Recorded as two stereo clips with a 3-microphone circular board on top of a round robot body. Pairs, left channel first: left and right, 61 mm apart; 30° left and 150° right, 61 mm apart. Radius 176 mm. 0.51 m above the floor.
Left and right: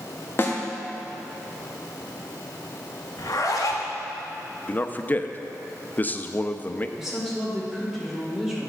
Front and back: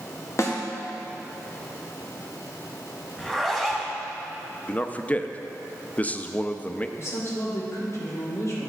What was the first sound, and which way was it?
A snare drum, 50° left.